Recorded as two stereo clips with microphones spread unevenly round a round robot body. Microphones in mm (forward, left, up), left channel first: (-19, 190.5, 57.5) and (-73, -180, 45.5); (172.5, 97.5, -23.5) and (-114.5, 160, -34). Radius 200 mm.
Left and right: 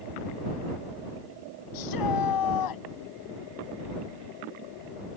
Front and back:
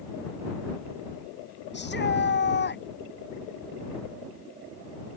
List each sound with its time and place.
1.7 s a shout: 40° left